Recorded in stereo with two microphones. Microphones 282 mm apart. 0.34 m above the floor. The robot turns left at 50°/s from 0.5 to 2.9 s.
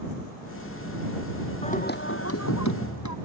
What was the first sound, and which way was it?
Singing, 160° left.